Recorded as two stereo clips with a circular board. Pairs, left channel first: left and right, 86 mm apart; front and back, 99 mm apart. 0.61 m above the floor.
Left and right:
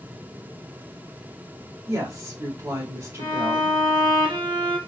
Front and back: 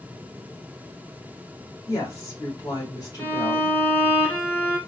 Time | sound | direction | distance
1.9 | a woman speaking | 50° right | 2 m
3.2 | a violin | 75° right | 1.6 m